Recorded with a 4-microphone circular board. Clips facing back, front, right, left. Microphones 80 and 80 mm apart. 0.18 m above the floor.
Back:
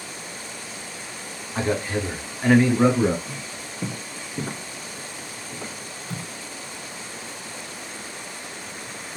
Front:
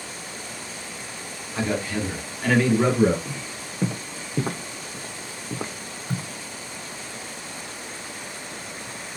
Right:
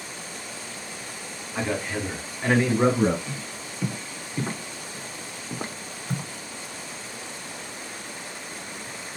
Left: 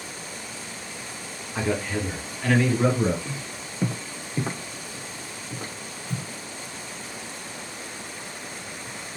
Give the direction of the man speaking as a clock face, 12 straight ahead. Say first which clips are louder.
Back 1 dB, left 1 dB; 6 o'clock.